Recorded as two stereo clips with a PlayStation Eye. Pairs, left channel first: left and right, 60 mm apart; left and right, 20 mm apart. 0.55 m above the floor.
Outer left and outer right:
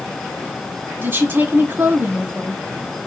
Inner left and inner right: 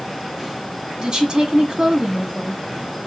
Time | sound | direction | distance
1.0 | a woman speaking | 35° right (ahead or behind) | 1.6 m